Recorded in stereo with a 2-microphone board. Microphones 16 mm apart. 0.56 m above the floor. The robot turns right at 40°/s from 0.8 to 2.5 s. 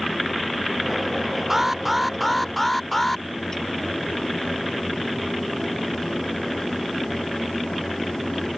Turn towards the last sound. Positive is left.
turn(degrees=10)